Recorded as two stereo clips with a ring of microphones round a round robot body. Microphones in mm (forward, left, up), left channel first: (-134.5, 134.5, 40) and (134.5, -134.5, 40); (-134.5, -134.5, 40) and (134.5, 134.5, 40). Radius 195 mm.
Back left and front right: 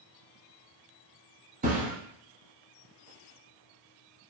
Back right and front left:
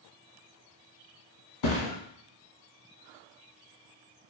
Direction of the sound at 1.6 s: 115° right.